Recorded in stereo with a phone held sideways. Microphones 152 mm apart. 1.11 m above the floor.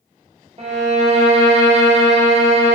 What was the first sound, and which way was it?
A violin, 40° right (ahead or behind).